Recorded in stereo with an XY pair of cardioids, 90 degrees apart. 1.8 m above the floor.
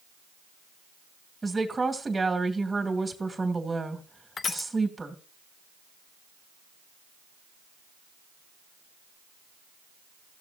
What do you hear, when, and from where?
1.4 s a woman speaking: 20° right, 2.5 m
4.4 s crushing: 50° left, 0.8 m